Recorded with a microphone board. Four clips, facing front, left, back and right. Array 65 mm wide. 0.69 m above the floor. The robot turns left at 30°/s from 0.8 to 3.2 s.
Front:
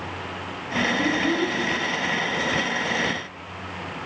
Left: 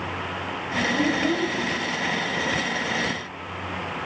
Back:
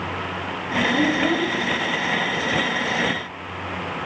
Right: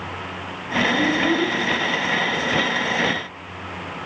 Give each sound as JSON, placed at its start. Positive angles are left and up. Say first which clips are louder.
{"t": 0.9, "sound": "a child speaking", "louder": "right 2 dB, back 3 dB", "azimuth_deg": -170, "distance_m": 2.0}